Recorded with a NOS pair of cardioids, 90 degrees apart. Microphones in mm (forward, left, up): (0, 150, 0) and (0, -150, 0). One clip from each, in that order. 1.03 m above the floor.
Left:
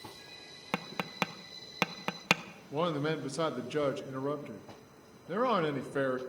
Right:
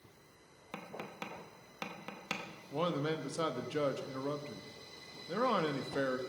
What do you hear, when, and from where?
0.7 s tapping: 65° left, 0.8 m
2.7 s a man speaking: 20° left, 1.1 m